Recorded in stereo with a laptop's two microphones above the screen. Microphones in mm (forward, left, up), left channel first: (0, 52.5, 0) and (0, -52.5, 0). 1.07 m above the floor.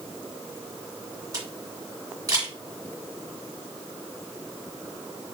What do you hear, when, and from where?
1.3 s a camera shutter: 35° right (ahead or behind), 1.6 m